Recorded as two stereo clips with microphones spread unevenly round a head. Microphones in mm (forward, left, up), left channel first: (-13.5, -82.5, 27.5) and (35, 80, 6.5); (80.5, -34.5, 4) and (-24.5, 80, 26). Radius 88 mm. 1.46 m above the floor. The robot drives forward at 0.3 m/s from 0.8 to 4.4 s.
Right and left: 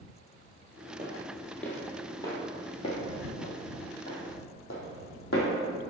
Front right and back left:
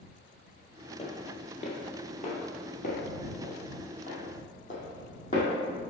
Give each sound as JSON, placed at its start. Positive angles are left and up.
{"t": 1.0, "sound": "footsteps", "azimuth_deg": -20, "distance_m": 1.8}